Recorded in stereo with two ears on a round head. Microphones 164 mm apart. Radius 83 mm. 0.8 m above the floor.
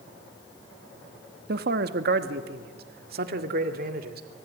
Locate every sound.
1.5 s a man speaking: 55° right (ahead or behind), 1.2 m